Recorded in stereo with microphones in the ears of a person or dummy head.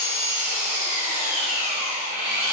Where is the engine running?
55° right (ahead or behind), 3.5 m.